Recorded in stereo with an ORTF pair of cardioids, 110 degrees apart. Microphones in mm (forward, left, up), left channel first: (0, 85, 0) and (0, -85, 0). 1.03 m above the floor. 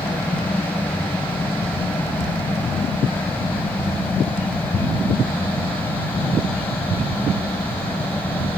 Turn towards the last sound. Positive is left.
turn(degrees=10)